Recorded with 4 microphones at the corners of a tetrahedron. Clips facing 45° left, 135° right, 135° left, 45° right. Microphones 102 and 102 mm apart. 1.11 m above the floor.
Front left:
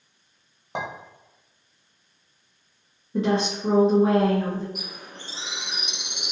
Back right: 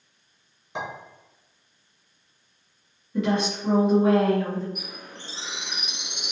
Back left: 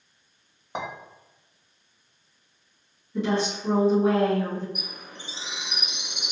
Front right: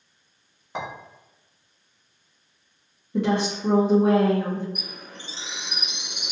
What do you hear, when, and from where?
0.8 s a clink: 60° left, 1.0 m
3.1 s a woman speaking: 15° right, 0.8 m
4.8 s a bird: 55° left, 1.5 m